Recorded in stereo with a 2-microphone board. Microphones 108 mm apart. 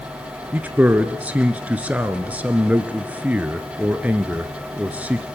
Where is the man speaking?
15° right (ahead or behind), 1.1 m.